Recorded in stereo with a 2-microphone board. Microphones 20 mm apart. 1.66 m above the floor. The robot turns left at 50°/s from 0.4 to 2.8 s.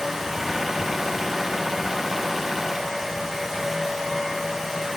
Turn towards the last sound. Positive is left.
No sound to turn to.